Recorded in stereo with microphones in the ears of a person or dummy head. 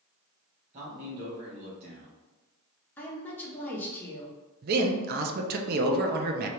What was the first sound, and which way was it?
A man speaking, 40° right (ahead or behind).